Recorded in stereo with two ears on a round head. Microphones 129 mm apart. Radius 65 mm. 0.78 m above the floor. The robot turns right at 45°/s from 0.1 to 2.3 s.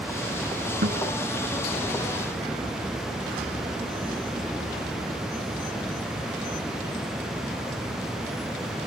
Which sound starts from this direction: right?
A guitar, at 0.8 s.